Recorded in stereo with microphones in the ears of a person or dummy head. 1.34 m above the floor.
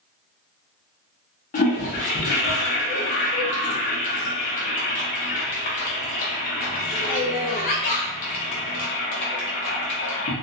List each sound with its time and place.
1.5 s a toilet flushing: 45° left (ahead or behind), 0.9 m